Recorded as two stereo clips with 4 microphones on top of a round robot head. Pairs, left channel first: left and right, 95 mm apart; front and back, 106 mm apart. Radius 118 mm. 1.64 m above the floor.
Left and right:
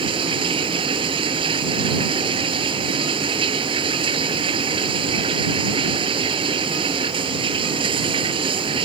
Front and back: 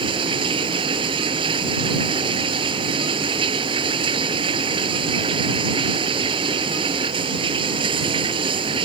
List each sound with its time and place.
0.0 s running water: 130° right